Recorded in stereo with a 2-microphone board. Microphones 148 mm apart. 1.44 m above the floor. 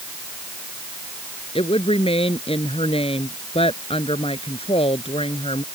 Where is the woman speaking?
40° left (ahead or behind).